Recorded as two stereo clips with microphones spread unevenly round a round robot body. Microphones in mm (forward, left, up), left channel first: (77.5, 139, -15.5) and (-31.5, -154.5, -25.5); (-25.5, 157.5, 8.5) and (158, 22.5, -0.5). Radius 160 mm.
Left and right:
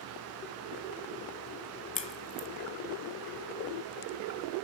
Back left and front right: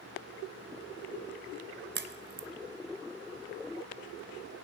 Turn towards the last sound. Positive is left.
turn(degrees=0)